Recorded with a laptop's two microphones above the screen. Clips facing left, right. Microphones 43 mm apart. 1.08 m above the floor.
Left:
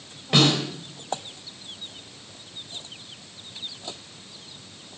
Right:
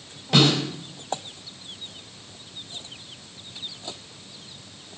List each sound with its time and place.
0.3 s a snare drum: 30° left (ahead or behind), 3.5 m